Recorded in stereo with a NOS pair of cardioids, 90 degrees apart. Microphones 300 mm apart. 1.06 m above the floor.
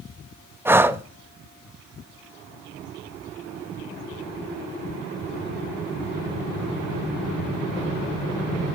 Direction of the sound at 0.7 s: 10° right.